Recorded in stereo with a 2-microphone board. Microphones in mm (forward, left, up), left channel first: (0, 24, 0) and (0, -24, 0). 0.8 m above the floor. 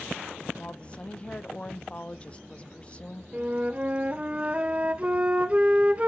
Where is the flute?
30° right (ahead or behind), 0.5 m.